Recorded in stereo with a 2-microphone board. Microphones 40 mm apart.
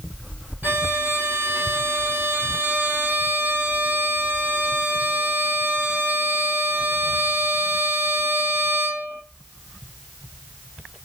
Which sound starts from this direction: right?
A violin, at 0.6 s.